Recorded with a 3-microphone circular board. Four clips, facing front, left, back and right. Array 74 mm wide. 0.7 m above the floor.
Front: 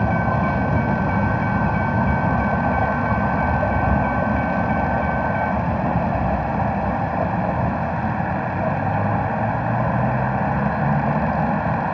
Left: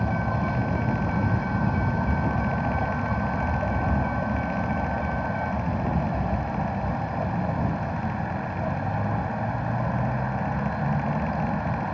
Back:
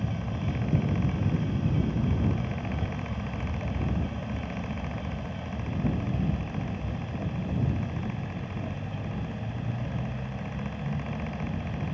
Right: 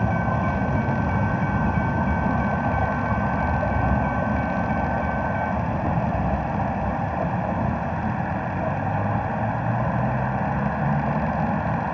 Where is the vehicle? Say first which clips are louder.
Right 3 dB, front 14 dB; 20° right.